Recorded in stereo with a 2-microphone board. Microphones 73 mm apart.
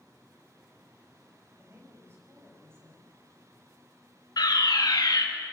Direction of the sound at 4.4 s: 65° left (ahead or behind).